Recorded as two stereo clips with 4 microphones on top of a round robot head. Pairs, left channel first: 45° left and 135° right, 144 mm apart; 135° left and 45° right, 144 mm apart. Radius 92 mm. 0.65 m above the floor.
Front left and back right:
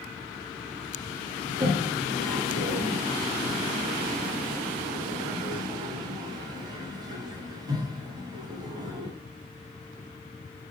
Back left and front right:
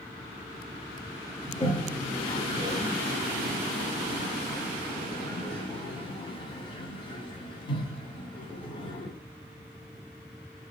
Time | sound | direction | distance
1.5 | a toilet flushing | 175° left | 1.0 m